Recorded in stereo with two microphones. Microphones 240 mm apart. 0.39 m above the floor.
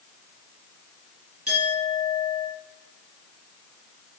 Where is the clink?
75° right (ahead or behind), 4.5 m.